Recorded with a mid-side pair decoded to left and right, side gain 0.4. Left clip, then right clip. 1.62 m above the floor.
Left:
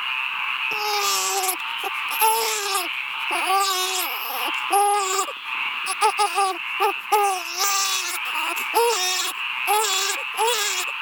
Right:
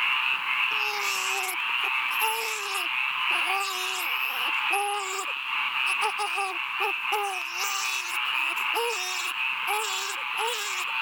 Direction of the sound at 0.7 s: 70° left.